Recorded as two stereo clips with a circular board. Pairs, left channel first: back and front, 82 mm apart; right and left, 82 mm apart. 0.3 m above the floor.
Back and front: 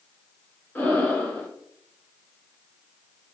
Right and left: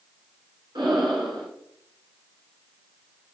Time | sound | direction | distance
0.8 | breathing | 110° left | 1.2 m